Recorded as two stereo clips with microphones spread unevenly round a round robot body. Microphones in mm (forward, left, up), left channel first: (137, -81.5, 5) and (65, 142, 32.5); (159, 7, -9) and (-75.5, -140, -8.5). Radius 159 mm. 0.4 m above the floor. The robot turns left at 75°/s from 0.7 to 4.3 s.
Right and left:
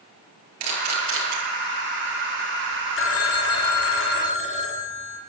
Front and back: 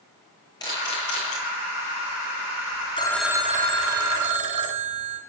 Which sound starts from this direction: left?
A camera shutter, at 0.6 s.